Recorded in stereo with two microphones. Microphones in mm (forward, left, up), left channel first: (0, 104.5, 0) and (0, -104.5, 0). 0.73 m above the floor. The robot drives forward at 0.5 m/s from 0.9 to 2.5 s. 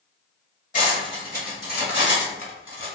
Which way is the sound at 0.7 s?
40° left (ahead or behind).